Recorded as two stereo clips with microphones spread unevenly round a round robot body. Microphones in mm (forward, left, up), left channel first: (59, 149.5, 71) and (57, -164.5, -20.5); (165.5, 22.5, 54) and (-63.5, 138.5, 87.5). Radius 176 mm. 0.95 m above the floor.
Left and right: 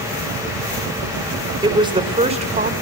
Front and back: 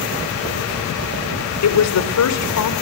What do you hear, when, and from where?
1.6 s a woman speaking: 15° right, 3 m; by 2.7 s 25° right, 3.5 m